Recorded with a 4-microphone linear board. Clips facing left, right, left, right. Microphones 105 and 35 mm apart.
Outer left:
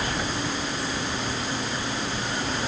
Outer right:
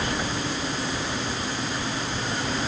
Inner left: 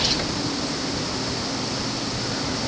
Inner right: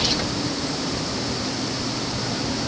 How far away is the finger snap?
No finger snap in this recording.